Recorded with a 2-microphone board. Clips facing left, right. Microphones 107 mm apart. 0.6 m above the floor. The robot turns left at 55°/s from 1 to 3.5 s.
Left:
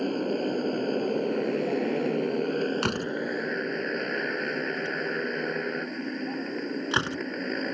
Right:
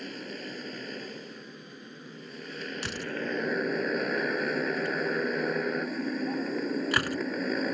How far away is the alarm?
I don't hear an alarm.